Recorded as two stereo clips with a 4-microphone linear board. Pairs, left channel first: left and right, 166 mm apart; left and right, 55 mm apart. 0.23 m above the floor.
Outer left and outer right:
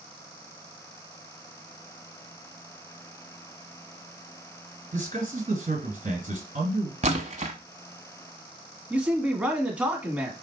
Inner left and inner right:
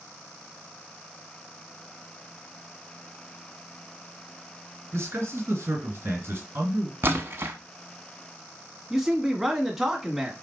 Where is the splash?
40° right (ahead or behind), 0.9 m.